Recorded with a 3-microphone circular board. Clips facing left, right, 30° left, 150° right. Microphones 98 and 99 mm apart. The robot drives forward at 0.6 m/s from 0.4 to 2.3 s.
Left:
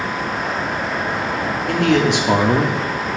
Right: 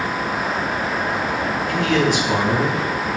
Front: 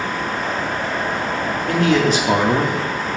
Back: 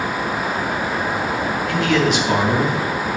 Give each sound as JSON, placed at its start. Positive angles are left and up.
{"t": 1.7, "sound": "a man speaking", "azimuth_deg": 70, "distance_m": 1.9}